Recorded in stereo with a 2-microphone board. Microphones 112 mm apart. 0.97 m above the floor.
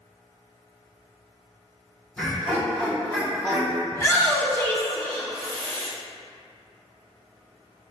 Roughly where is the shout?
Left.